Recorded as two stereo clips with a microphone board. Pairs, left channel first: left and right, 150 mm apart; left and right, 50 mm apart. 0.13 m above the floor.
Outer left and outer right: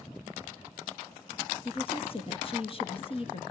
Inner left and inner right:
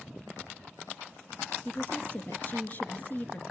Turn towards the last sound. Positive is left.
turn(degrees=40)  # may be behind; listen again after turning